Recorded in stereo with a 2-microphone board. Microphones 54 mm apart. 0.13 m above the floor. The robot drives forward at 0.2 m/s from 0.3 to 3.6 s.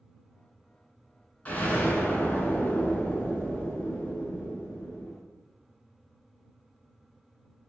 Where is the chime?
No chime in this recording.